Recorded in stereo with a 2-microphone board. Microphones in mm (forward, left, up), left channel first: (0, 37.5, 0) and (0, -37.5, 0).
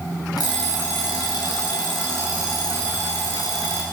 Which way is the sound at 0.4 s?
65° left (ahead or behind).